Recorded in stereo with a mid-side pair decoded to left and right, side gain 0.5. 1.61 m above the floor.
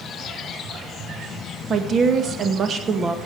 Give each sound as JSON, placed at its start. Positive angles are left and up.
{"t": 1.7, "sound": "a woman speaking", "azimuth_deg": -45, "distance_m": 2.0}